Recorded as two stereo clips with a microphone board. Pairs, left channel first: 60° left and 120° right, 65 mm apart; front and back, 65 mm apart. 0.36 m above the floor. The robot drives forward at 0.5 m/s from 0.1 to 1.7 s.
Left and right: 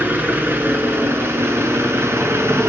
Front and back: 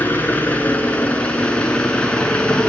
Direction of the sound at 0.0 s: 60° right.